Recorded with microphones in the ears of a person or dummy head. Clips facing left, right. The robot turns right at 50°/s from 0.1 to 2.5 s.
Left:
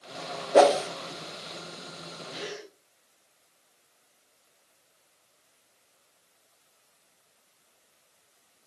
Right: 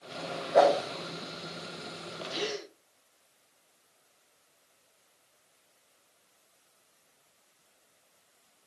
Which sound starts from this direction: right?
A gasp, at 2.3 s.